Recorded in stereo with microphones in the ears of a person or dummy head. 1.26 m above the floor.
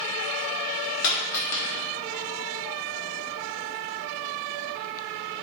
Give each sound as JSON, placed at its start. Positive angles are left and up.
{"t": 1.0, "sound": "a dropped coin", "side_deg": 50, "distance_m": 1.1}